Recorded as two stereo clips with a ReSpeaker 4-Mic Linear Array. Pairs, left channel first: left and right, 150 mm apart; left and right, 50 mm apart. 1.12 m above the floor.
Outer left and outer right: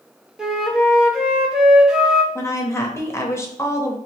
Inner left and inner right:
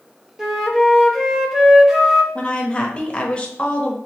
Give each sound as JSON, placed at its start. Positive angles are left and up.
{"t": 0.4, "sound": "a flute", "side_deg": -5, "distance_m": 0.6}
{"t": 2.4, "sound": "a woman speaking", "side_deg": 20, "distance_m": 0.8}